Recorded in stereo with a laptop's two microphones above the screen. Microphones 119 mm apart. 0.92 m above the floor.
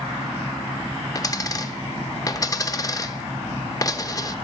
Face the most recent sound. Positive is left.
turn(degrees=30)  # may be behind; listen again after turning